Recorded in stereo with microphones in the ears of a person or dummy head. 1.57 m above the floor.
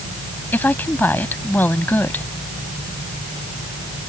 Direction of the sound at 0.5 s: 15° left (ahead or behind).